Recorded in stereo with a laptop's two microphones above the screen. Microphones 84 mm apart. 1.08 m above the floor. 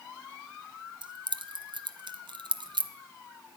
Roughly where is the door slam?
No door slam in this recording.